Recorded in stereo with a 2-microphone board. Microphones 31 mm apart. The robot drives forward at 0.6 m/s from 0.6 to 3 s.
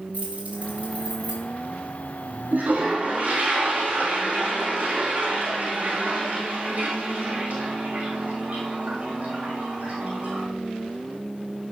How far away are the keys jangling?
About 4.5 m.